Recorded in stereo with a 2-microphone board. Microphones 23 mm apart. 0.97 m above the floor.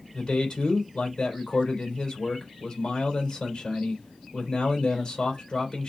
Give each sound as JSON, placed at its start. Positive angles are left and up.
{"t": 0.1, "sound": "a man speaking", "side_deg": 45, "distance_m": 3.0}